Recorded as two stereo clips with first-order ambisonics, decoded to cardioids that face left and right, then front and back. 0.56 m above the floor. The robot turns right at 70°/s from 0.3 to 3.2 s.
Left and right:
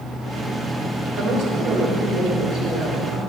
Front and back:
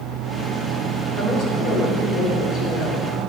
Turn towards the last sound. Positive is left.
turn(degrees=70)